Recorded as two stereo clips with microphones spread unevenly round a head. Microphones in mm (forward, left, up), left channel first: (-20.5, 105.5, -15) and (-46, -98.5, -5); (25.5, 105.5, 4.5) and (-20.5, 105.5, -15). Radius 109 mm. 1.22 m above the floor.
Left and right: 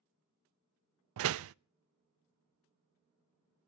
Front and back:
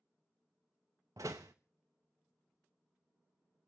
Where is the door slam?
110° right, 0.5 m.